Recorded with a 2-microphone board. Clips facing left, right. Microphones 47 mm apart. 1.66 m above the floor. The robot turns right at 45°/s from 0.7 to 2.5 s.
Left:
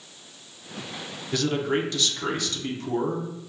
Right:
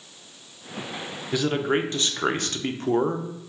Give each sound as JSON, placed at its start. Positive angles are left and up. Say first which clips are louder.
{"t": 1.3, "sound": "a man speaking", "louder": "right 1 dB", "azimuth_deg": -165, "distance_m": 0.5}